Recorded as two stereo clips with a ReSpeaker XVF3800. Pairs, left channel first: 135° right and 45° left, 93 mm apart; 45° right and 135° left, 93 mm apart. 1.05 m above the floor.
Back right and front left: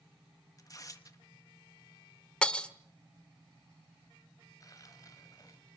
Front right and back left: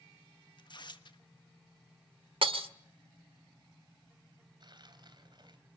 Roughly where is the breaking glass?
Behind left.